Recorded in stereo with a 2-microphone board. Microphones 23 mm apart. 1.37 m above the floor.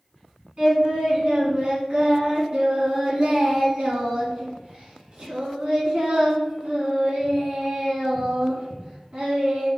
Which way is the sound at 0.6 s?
45° right (ahead or behind).